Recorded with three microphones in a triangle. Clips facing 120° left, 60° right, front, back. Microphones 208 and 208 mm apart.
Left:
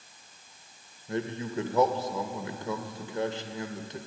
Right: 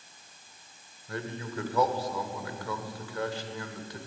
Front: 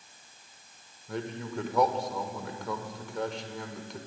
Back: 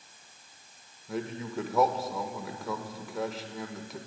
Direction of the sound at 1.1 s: 95° left.